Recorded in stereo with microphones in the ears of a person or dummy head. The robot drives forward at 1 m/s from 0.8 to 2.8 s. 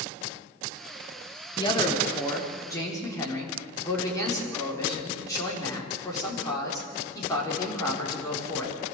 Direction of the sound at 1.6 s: 25° left (ahead or behind).